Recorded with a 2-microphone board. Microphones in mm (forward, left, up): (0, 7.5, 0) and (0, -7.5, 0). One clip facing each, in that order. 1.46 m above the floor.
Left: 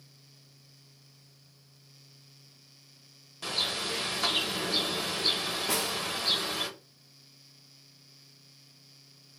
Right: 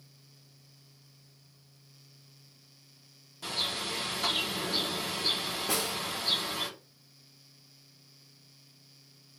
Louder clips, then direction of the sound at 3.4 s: Left 2 dB; 30° left (ahead or behind).